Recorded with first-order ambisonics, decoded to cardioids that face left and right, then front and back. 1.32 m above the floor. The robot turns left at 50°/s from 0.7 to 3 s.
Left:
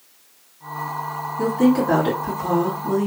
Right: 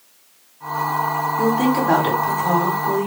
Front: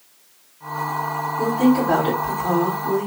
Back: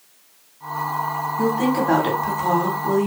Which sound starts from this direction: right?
A woman speaking, at 1.4 s.